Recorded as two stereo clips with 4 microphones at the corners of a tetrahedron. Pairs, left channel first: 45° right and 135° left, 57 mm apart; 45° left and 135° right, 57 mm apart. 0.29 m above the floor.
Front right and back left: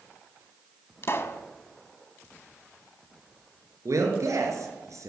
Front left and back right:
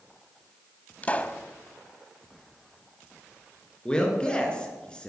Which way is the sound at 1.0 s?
15° right.